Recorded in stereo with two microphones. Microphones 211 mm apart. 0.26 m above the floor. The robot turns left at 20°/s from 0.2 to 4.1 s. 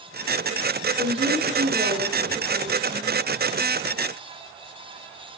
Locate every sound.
1.0 s a woman speaking: 35° right, 2 m; by 3.2 s 80° right, 2 m